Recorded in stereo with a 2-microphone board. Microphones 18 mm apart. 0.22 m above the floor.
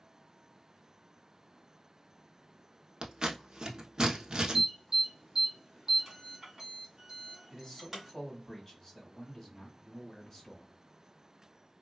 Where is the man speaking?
20° left (ahead or behind), 1.4 m.